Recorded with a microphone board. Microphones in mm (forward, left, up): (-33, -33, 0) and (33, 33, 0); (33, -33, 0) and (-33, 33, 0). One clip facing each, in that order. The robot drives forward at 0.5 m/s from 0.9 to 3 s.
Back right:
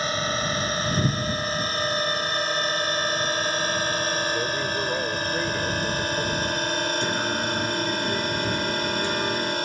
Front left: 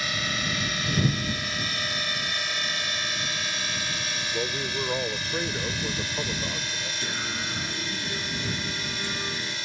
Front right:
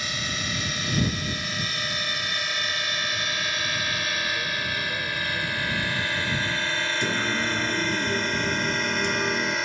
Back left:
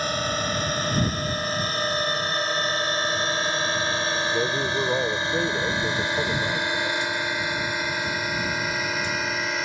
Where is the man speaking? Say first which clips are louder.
Back right 4 dB, back left 6 dB; 130° left.